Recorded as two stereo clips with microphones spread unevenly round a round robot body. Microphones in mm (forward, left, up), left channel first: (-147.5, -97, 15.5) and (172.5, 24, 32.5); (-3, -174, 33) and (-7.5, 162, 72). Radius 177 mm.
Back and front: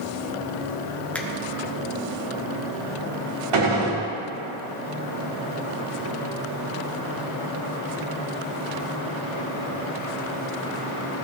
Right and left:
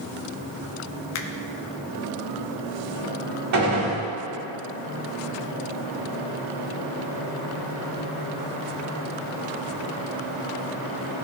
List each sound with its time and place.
1.1 s a finger snap: 75° right, 0.9 m
3.5 s a gunshot: 45° left, 2.5 m